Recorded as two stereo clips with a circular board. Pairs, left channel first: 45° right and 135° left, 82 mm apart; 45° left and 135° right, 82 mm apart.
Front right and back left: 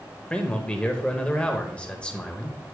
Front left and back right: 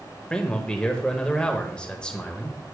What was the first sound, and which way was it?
A man speaking, 5° right.